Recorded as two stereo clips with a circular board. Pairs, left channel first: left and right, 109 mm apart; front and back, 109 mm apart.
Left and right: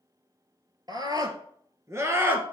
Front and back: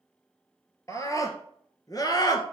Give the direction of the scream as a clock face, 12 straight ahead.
2 o'clock.